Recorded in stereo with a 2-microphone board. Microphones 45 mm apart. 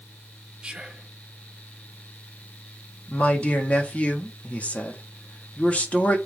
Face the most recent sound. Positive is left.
turn(degrees=30)  # may be behind; listen again after turning